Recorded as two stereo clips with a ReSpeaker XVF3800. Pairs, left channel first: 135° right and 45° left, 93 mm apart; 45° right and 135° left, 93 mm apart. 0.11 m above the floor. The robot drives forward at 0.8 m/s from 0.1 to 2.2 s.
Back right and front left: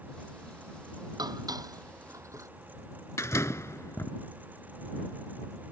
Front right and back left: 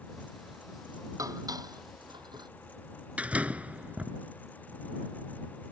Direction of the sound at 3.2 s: 160° right.